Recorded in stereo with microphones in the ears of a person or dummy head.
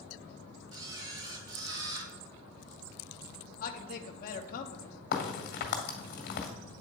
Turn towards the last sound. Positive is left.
turn(degrees=55)  # may be behind; listen again after turning